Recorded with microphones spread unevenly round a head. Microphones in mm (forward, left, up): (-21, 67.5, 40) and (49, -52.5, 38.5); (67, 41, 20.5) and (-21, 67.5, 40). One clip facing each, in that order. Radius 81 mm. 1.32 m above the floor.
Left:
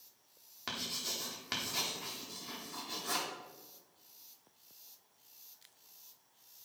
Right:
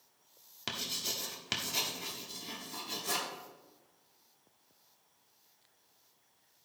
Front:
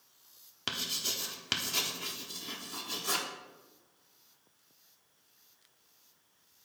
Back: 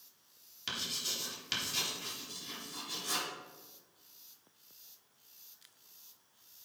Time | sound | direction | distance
0.7 | writing | straight ahead | 1.0 m